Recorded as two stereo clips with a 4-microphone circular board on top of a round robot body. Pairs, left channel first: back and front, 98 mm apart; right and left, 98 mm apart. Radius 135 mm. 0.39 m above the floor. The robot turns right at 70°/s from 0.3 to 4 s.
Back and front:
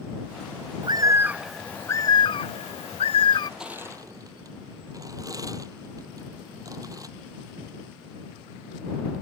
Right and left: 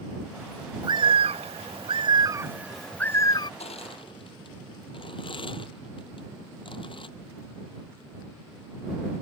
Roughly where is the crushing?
Right.